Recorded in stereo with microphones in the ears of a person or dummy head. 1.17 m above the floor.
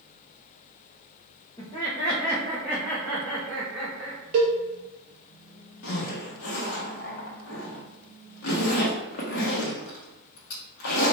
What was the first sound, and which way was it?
Laughter, 20° left (ahead or behind).